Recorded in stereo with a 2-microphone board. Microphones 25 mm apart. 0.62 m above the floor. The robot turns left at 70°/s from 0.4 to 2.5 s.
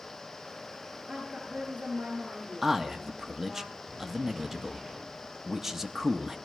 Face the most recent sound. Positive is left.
turn(degrees=-15)  # may be behind; listen again after turning